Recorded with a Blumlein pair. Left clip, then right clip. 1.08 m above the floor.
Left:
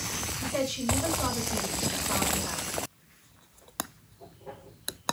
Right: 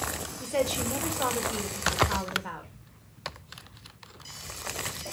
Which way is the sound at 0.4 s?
55° right.